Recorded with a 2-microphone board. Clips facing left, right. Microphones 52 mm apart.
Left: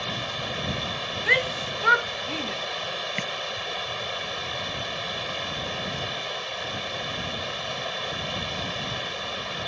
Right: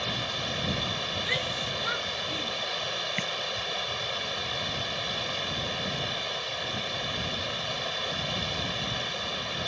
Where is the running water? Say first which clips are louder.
Left 1 dB; 10° left (ahead or behind).